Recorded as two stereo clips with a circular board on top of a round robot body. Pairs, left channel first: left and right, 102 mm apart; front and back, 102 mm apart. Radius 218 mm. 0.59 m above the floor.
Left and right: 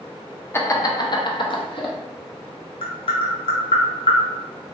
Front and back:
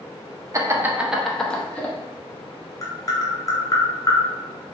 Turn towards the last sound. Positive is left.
turn(degrees=55)